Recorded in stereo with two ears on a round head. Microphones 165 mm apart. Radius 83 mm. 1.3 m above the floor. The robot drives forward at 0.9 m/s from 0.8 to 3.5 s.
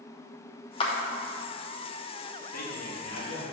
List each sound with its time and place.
0.8 s a clap: 30° left (ahead or behind), 0.7 m; by 0.9 s 35° left (ahead or behind), 0.6 m
2.5 s a man speaking: 50° left (ahead or behind), 1.5 m; by 3.4 s 35° left (ahead or behind), 2 m